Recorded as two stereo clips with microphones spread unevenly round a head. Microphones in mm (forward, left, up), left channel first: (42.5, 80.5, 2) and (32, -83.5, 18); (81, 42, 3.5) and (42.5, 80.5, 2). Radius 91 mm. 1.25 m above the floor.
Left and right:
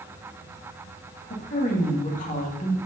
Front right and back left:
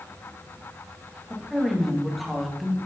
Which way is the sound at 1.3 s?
45° left.